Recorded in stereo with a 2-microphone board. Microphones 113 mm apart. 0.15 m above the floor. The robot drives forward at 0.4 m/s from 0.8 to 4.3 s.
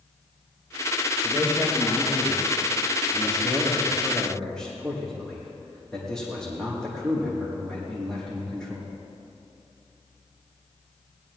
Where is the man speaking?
10° left (ahead or behind), 5.5 m; by 8.9 s 5° left (ahead or behind), 6.5 m.